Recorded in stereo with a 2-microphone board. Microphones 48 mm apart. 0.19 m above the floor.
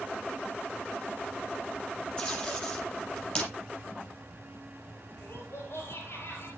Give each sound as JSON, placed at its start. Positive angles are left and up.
{"t": 2.2, "sound": "tape being pulled", "side_deg": 20, "distance_m": 6.5}
{"t": 5.2, "sound": "laughter", "side_deg": 55, "distance_m": 5.0}